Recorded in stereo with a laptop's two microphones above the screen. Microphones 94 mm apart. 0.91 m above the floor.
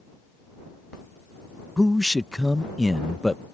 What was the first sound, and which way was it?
A man speaking, centre (ahead or behind).